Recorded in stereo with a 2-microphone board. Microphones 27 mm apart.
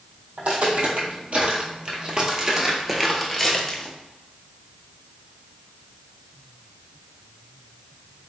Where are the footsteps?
65° right (ahead or behind), 1.8 m; by 3.9 s 25° left (ahead or behind), 1.2 m.